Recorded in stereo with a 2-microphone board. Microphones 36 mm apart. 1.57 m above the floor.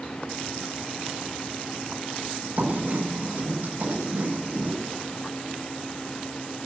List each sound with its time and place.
2.6 s writing: 60° right (ahead or behind), 8.5 m